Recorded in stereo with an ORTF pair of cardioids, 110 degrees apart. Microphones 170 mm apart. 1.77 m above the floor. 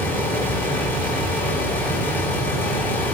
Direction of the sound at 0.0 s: 10° left.